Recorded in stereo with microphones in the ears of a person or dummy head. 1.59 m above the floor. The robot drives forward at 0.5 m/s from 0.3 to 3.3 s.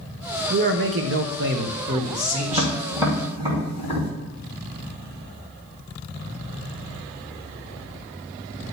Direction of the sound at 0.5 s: 55° right (ahead or behind).